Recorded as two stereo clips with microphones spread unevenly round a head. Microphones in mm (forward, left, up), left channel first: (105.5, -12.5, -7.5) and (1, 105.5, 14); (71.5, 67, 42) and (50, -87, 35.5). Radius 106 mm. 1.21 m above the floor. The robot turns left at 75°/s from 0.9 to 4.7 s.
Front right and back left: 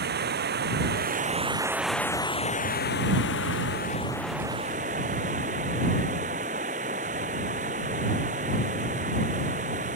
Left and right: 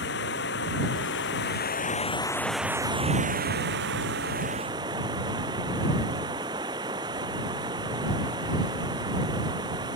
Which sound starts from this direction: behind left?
Running water, at 0.0 s.